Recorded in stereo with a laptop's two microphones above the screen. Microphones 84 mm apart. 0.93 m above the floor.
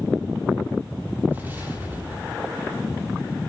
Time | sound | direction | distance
1.3 | an explosion | 20° right (ahead or behind) | 2.5 m